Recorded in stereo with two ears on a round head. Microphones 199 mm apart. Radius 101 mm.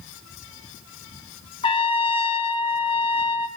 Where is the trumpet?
25° left (ahead or behind), 0.7 m.